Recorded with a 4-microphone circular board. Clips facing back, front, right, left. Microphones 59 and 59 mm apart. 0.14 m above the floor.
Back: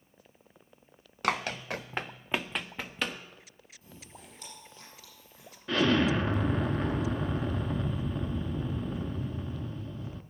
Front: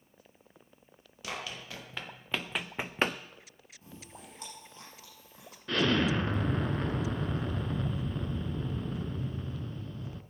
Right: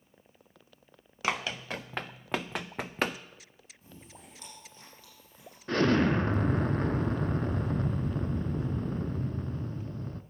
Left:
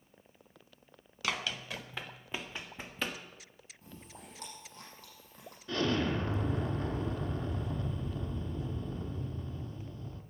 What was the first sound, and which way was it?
Running footsteps, 150° right.